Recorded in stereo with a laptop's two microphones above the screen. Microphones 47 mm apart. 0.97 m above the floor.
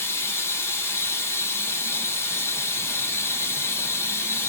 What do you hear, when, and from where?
0.0 s running water: 60° left (ahead or behind), 2.5 m